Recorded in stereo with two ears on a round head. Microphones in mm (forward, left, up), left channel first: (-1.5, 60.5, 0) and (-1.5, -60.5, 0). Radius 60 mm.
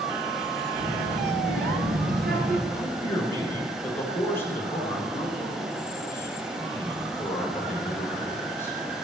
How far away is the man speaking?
About 5 m.